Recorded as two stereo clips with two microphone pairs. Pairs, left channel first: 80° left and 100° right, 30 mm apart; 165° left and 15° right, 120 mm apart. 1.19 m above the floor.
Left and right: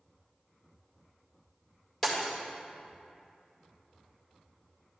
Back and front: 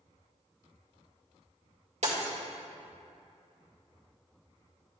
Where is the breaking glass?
5° left, 2.0 m.